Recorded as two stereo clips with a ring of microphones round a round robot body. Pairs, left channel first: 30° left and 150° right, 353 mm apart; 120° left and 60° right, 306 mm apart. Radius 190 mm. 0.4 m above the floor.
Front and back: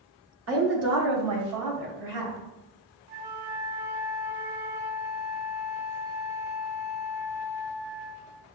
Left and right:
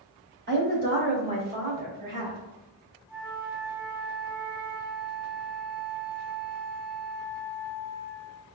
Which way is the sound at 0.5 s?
110° right.